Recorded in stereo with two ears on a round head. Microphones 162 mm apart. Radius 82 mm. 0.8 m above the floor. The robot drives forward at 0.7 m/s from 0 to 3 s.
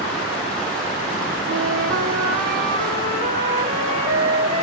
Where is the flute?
80° right, 0.7 m; by 4.6 s 35° right (ahead or behind), 1.2 m.